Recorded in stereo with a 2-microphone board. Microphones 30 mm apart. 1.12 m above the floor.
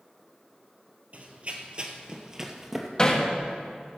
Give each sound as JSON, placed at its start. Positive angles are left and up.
{"t": 1.1, "sound": "running footsteps", "side_deg": -50, "distance_m": 1.6}
{"t": 3.0, "sound": "hammering", "side_deg": 25, "distance_m": 1.4}